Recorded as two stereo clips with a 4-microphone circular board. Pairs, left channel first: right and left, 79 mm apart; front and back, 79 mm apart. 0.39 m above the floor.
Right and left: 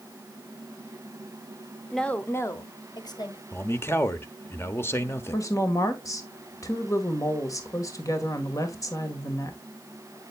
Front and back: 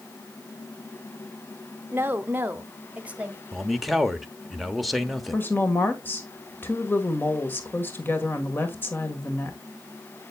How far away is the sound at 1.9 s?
About 0.8 m.